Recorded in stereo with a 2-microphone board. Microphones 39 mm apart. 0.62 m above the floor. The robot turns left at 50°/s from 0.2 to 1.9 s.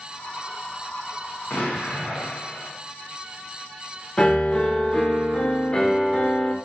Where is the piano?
25° left (ahead or behind), 0.6 m.